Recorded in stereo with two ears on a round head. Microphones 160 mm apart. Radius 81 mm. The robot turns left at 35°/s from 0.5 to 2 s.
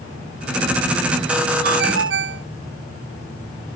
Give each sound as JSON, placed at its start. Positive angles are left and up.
{"t": 1.6, "sound": "a ringtone", "side_deg": -55}